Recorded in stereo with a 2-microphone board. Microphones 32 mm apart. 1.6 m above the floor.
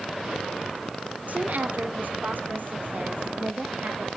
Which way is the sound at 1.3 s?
60° right (ahead or behind).